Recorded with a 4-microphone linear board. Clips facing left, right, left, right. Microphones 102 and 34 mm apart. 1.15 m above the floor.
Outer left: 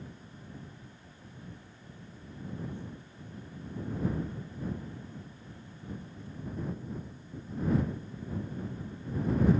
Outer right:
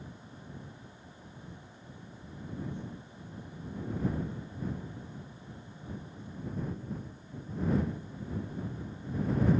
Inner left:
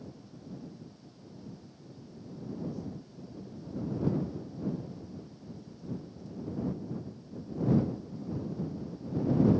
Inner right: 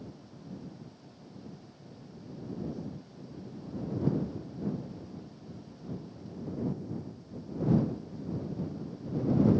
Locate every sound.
Only background noise.